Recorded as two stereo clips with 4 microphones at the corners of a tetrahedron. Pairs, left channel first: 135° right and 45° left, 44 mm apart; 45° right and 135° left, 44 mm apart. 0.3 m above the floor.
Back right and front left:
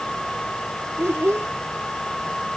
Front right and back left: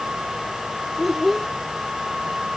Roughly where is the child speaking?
Ahead left.